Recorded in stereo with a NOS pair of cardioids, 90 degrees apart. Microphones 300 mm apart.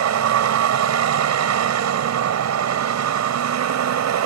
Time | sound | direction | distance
0.0 | a vehicle | 60° right | ?